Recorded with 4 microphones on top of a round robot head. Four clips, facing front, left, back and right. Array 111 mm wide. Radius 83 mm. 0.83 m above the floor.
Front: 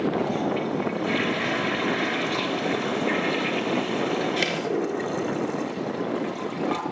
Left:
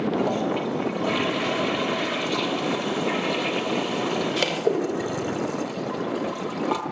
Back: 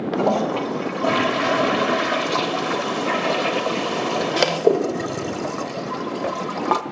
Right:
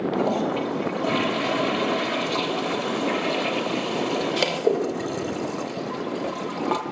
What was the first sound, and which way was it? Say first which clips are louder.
A toilet flushing: right 1 dB, back 5 dB; 170° right.